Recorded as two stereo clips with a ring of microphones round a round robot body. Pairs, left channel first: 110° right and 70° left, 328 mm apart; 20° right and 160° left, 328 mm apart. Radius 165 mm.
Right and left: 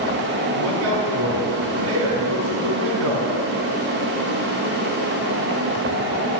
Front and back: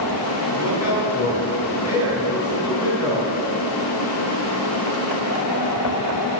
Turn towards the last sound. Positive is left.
turn(degrees=20)